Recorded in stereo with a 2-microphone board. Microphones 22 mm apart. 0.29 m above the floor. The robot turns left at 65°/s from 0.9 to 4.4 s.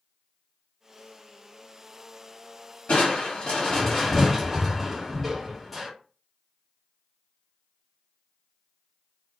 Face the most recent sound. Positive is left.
turn(degrees=-5)